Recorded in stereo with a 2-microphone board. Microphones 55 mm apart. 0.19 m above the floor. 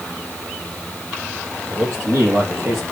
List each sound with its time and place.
1.7 s a man speaking: 60° right (ahead or behind), 8 m; by 2.8 s 55° right (ahead or behind), 7 m